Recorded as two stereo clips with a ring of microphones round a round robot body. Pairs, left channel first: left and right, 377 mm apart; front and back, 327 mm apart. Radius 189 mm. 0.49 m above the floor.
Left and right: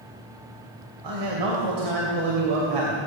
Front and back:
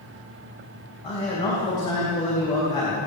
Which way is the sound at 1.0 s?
75° right.